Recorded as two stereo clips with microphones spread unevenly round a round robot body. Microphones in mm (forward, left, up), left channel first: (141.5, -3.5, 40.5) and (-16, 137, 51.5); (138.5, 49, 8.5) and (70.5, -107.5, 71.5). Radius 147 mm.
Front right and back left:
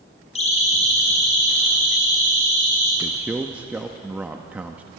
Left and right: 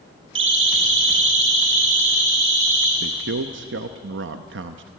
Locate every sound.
0.3 s a siren: 105° right, 3.5 m; by 2.9 s 115° right, 6 m
3.0 s a man speaking: 135° right, 0.7 m